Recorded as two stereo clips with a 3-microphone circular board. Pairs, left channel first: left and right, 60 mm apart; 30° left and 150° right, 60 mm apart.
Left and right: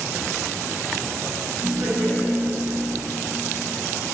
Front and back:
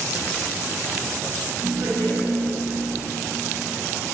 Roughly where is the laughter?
Behind.